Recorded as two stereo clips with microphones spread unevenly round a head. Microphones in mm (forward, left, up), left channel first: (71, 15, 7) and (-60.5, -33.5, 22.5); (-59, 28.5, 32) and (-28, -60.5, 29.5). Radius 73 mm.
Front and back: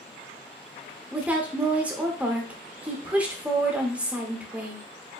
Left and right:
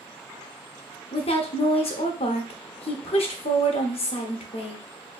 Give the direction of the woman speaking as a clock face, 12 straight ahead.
8 o'clock.